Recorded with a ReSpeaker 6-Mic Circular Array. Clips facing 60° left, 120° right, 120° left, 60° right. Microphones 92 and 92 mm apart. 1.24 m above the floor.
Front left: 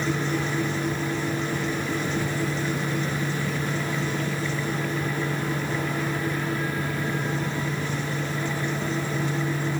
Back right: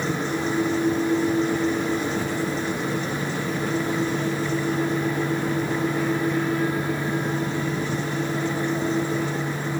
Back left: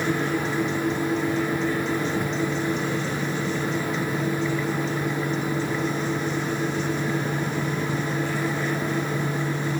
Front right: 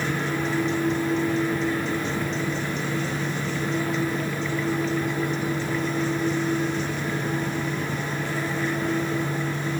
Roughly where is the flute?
I don't hear a flute.